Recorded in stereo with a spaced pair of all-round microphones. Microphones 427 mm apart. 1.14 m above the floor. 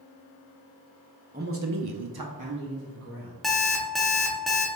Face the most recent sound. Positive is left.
turn(degrees=0)  # may be behind; listen again after turning